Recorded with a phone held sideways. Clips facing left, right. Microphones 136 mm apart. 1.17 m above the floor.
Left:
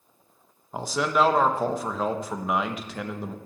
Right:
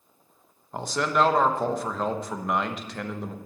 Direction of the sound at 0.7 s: 5° left (ahead or behind).